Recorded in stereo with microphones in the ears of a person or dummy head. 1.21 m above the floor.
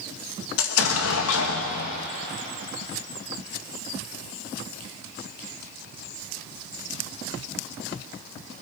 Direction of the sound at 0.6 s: 80° left.